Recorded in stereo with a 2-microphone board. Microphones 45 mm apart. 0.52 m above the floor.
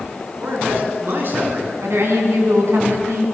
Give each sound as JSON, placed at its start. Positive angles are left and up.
{"t": 0.4, "sound": "a man speaking", "side_deg": -55, "distance_m": 6.5}
{"t": 1.8, "sound": "a woman speaking", "side_deg": -75, "distance_m": 5.5}